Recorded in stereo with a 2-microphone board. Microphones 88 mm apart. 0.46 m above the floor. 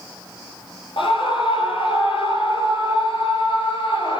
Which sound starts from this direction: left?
A scream, at 1.0 s.